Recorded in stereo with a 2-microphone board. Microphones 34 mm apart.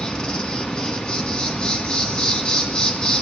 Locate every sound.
0.0 s an insect: 25° left (ahead or behind), 2 m